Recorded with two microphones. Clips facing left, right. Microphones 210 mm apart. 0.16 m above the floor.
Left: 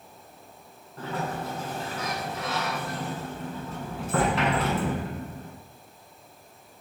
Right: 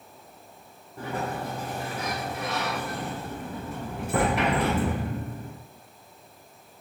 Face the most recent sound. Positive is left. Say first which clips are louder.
# right 1 dB
turn(degrees=-15)  # may be behind; listen again after turning